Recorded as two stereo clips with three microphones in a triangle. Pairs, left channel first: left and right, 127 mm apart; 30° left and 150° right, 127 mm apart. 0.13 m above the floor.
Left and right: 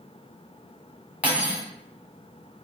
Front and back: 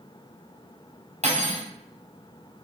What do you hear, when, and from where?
1.2 s cutlery clinking: 165° right, 1.4 m